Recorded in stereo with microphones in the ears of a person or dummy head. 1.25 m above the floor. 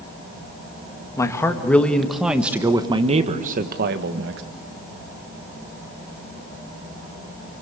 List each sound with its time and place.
1.2 s a man speaking: 15° left (ahead or behind), 2 m; by 4.4 s 65° right (ahead or behind), 1.8 m